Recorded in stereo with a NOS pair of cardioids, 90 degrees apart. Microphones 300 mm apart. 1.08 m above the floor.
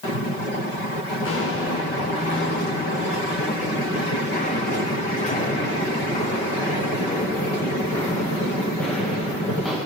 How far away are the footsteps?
About 7 m.